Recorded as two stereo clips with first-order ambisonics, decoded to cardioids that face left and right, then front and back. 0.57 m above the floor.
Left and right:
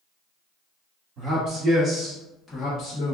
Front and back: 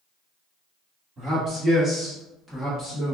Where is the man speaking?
115° right, 1.3 m; by 3.1 s 70° left, 1.0 m.